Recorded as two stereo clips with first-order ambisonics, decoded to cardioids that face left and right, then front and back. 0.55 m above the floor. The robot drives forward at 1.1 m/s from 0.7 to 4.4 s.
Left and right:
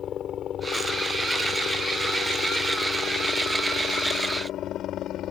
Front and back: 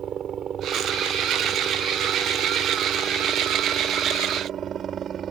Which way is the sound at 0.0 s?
130° left.